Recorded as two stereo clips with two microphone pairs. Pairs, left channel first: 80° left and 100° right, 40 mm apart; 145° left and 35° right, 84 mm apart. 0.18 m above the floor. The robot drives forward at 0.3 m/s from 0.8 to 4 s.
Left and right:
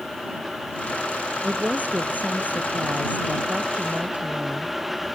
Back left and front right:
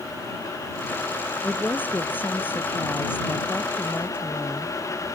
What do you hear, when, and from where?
1.4 s a woman speaking: 145° right; by 4.8 s 150° right